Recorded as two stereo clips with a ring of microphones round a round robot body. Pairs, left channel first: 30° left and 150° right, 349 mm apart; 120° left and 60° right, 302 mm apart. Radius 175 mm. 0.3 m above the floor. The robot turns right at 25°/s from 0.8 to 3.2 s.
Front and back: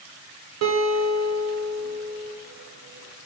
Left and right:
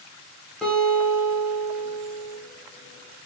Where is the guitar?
150° right, 0.6 m; by 2.4 s 115° right, 0.6 m.